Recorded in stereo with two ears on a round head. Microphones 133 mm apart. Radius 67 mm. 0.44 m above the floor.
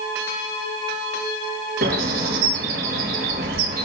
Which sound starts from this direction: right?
A bird, at 1.8 s.